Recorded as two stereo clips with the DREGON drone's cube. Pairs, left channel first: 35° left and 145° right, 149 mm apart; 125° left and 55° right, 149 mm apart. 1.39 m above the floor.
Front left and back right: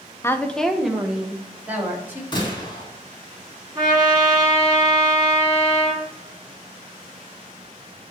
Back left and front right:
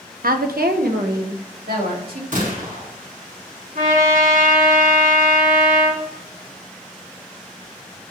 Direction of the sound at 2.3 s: 25° right.